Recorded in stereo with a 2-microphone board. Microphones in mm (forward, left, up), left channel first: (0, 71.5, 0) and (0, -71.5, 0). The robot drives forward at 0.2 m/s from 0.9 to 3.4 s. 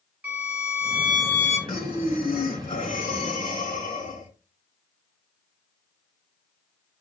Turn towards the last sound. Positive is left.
turn(degrees=60)  # may be behind; listen again after turning